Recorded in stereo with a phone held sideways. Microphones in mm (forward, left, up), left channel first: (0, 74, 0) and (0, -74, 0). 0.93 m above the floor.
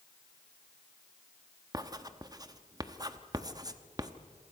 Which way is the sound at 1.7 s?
25° right (ahead or behind).